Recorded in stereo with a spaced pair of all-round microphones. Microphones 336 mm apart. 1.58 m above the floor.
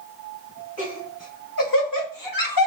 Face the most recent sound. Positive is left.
turn(degrees=85)